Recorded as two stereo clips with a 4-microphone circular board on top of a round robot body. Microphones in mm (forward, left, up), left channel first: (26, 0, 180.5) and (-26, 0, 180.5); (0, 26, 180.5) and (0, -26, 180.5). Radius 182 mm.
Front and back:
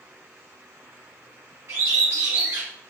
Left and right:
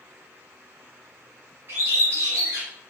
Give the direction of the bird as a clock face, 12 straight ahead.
5 o'clock.